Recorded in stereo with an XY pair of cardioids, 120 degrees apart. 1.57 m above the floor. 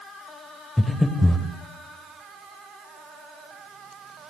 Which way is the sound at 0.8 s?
10° left.